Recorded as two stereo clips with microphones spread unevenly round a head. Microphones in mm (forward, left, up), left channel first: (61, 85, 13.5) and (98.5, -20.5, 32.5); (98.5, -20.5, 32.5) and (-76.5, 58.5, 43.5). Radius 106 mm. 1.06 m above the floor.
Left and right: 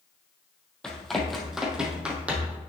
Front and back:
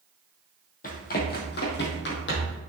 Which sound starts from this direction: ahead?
Running footsteps, at 0.8 s.